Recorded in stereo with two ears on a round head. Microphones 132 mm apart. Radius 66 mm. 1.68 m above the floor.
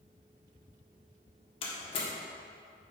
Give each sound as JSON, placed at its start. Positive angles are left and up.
{"t": 1.6, "sound": "a door slam", "side_deg": 40, "distance_m": 1.4}